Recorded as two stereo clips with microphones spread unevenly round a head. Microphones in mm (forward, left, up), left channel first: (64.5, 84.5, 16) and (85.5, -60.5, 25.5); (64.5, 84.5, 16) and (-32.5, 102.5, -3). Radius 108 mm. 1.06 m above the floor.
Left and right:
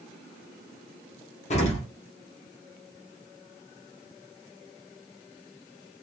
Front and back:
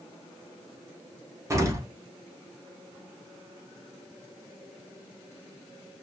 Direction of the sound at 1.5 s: 125° left.